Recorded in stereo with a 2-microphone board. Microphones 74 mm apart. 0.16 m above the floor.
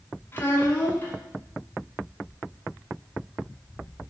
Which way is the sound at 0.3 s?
30° left (ahead or behind).